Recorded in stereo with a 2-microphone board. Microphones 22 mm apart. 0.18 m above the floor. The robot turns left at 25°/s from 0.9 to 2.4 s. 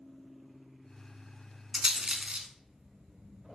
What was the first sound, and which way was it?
A rattle, 25° right (ahead or behind).